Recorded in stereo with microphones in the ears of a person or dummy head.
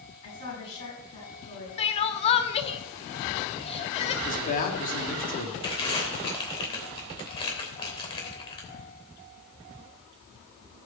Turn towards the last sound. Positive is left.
turn(degrees=25)  # may be behind; listen again after turning